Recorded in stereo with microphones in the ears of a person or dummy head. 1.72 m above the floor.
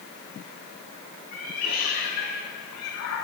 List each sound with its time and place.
1.3 s a cat meowing: 50° left (ahead or behind), 5.5 m; by 3.2 s 70° left (ahead or behind), 4 m